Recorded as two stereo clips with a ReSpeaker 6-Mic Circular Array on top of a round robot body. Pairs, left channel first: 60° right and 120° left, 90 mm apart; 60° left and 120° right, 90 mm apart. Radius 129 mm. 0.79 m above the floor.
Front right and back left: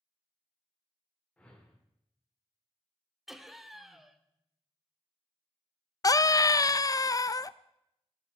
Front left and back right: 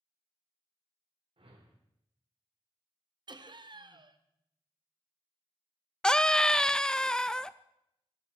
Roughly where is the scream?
Ahead.